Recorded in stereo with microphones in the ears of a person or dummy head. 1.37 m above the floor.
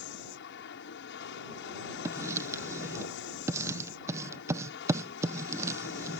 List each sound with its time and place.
0.0 s an aircraft: 55° left (ahead or behind)
2.0 s writing: 15° right (ahead or behind)